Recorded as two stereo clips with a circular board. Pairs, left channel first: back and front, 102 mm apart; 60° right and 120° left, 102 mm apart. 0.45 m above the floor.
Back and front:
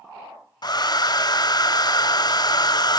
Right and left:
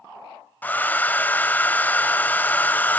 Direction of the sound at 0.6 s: 130° right.